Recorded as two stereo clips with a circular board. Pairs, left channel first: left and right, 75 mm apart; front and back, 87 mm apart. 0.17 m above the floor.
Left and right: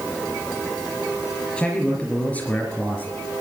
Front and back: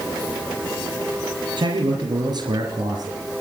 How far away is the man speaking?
About 4 m.